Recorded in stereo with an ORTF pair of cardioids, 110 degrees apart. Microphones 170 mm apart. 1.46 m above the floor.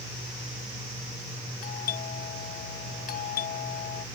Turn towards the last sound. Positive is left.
turn(degrees=60)